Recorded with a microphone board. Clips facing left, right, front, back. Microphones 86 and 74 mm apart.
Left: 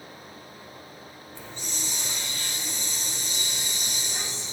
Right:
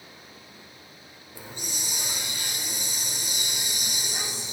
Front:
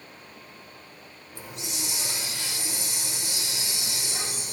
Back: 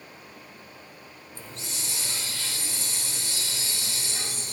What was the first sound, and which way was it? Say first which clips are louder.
A hiss: right 1 dB, front 3 dB; 35° right.